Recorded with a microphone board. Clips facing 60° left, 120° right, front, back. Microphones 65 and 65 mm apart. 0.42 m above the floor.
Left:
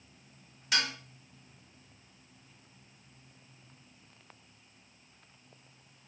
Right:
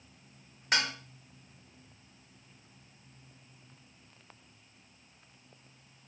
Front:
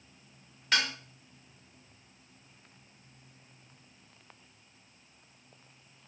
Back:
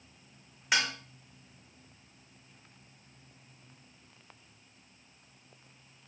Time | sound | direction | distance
0.7 | dishes clattering | 110° right | 0.8 m